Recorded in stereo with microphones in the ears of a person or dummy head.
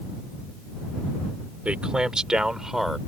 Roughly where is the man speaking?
Centre.